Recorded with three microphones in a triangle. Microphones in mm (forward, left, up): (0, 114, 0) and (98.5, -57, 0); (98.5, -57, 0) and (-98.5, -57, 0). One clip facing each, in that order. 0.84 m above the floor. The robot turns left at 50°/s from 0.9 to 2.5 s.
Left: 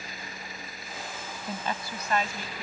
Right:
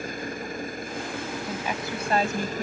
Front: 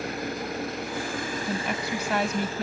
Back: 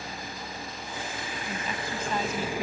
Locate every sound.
0.0 s an engine running: 20° right; by 2.6 s 100° right
1.5 s a woman speaking: 30° left; by 2.6 s 25° right